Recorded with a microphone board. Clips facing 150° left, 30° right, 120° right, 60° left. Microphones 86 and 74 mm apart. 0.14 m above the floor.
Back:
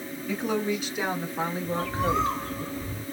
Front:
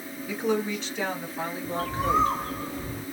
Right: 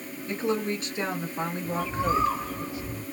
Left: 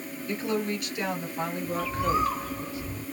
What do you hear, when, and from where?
0.3 s a woman speaking: 105° right, 1.3 m; by 2.6 s straight behind, 2.0 m
1.6 s a bird: 65° right, 0.8 m